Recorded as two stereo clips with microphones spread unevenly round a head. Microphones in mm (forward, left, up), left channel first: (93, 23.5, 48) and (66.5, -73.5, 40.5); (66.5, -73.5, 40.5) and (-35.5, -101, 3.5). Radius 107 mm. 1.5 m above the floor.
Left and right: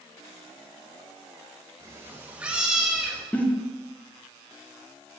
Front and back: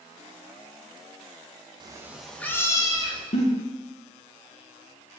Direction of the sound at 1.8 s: 140° right.